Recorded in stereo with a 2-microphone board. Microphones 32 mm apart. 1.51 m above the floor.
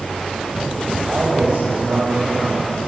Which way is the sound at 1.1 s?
50° right (ahead or behind).